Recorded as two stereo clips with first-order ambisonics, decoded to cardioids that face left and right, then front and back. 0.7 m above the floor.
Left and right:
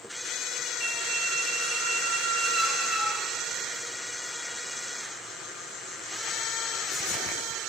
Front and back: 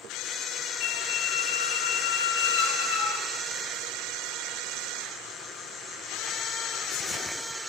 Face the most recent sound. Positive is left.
turn(degrees=-15)